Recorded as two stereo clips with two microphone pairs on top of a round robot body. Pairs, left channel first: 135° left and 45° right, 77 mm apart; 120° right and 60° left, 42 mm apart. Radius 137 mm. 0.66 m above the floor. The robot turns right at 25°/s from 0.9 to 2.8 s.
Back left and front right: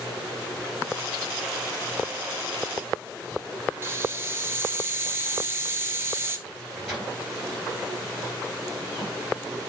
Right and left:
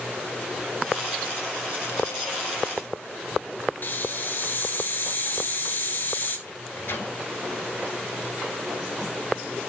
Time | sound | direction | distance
3.8 | a hiss | 100° right | 2 m
6.5 | a microwave | 130° right | 4.5 m